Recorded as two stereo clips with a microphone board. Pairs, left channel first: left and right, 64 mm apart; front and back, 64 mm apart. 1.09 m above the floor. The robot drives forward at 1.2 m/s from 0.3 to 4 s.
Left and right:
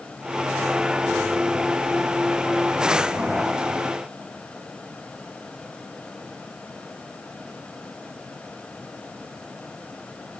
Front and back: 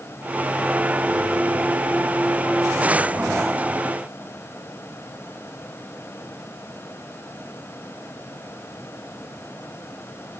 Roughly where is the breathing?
I don't hear breathing.